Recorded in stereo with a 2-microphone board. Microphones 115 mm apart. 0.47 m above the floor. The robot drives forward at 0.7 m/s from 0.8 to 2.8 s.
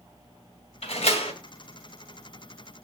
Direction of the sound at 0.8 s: 70° left (ahead or behind).